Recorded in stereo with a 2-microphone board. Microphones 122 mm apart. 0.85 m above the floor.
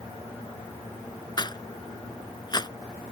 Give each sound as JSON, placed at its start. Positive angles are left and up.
{"t": 1.4, "sound": "a rattle", "side_deg": 35}